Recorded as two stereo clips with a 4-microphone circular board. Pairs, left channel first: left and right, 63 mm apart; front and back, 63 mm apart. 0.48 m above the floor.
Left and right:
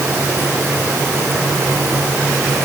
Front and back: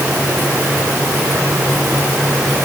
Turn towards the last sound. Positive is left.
No sound to turn to.